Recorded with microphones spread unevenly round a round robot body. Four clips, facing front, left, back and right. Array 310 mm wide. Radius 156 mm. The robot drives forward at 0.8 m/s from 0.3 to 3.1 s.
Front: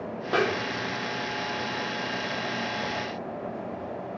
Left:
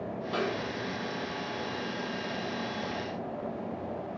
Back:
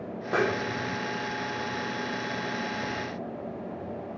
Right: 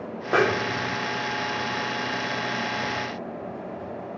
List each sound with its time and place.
0.3 s a snare drum: 70° right, 0.7 m; by 1.0 s 115° right, 0.8 m